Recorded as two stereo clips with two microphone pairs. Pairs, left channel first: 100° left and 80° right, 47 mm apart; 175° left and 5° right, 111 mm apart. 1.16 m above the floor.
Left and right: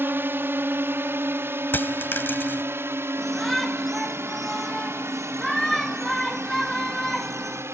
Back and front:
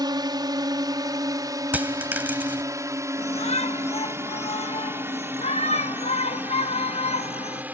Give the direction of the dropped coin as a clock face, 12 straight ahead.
10 o'clock.